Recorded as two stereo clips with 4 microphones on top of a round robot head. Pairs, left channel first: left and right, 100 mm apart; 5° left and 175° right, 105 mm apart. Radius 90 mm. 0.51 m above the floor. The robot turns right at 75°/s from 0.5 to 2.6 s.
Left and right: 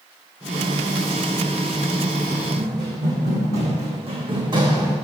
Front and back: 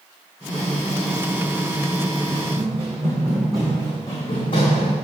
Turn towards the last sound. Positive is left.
turn(degrees=-40)